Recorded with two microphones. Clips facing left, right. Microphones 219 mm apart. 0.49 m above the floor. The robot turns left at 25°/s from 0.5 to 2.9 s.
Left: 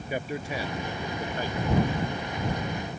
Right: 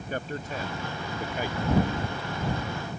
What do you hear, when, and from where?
0.1 s a man speaking: 10° left (ahead or behind); by 1.6 s 15° right (ahead or behind)